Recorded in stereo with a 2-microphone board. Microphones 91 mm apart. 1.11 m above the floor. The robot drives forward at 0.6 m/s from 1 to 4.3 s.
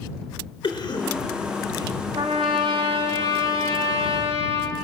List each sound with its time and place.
0.6 s a cough: 55° left (ahead or behind), 4 m; by 2.0 s 45° left (ahead or behind), 4.5 m
2.1 s a trumpet: 60° right (ahead or behind), 1.9 m; by 4.8 s 75° right (ahead or behind), 1.7 m